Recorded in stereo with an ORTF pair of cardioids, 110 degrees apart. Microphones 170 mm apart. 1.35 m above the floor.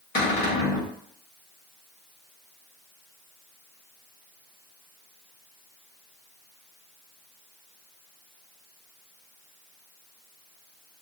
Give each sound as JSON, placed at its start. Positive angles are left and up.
{"t": 0.1, "sound": "a cupboard door", "azimuth_deg": 55, "distance_m": 1.4}